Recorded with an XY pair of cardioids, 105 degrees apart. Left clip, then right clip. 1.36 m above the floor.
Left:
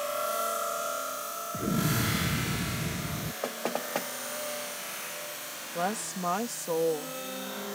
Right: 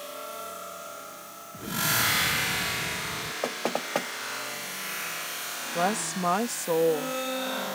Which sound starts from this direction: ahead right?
A woman speaking, at 5.8 s.